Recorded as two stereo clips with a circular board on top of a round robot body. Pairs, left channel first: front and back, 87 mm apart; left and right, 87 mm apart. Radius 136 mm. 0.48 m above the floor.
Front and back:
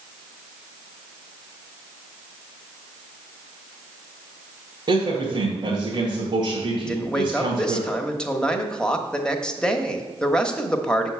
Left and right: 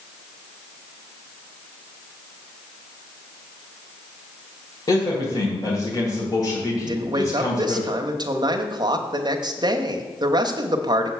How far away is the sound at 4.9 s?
About 2.5 m.